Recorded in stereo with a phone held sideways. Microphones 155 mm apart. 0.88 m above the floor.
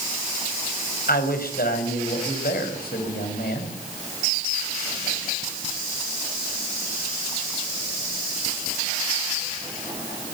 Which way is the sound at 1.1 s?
75° left (ahead or behind).